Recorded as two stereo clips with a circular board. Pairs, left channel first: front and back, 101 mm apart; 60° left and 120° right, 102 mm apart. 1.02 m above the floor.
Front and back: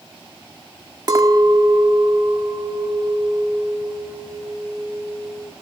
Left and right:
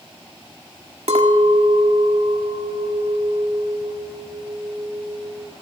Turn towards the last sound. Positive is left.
turn(degrees=-130)